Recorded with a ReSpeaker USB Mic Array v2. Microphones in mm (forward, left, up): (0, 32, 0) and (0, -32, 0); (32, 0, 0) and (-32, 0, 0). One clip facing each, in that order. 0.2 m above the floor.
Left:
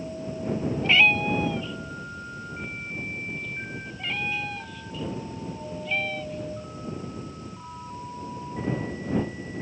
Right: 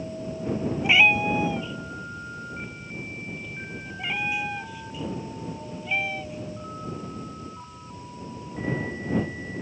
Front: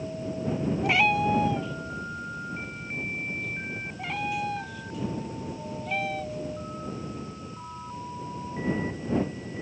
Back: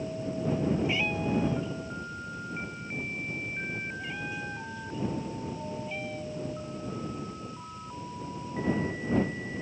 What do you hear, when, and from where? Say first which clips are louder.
0.8 s a cat meowing: right 1 dB, front 6 dB; 10° right